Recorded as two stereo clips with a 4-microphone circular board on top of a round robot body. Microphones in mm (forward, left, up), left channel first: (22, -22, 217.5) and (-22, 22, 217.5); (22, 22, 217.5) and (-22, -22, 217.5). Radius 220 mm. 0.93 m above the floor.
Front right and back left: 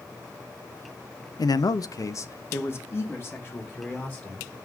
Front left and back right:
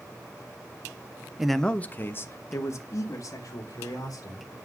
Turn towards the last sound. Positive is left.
turn(degrees=15)